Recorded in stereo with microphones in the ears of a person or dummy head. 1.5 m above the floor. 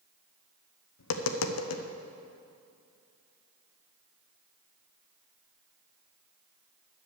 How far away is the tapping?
About 0.8 m.